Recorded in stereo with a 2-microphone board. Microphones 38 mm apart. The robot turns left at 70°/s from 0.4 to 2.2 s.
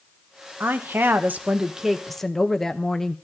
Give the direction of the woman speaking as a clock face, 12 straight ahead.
3 o'clock.